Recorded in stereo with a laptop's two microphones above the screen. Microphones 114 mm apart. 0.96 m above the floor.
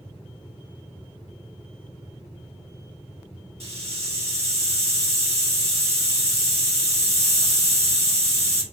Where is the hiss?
60° right (ahead or behind), 1.6 m.